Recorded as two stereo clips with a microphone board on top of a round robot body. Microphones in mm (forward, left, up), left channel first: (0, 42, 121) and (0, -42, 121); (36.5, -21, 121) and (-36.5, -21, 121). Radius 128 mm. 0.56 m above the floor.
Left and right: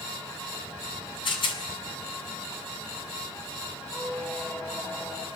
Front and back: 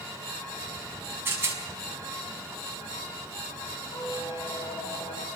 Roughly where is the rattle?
Behind left.